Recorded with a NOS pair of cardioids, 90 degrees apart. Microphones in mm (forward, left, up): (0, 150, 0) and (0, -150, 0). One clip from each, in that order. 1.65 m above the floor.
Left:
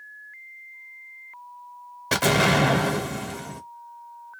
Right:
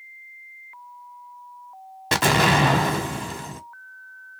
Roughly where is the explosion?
Ahead.